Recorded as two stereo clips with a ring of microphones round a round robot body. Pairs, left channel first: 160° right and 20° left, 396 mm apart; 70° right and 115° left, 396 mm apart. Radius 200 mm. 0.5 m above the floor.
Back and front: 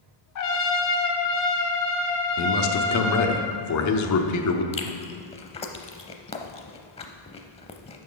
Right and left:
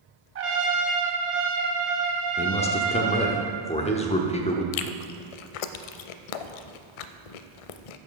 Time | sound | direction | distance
0.3 | a trumpet | 165° left | 1.2 m
2.4 | a man speaking | 135° right | 0.9 m
4.7 | chewing | 80° right | 0.5 m